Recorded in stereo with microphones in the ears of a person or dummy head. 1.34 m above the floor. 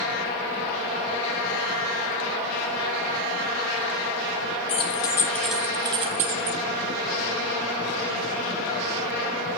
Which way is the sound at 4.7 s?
35° left (ahead or behind).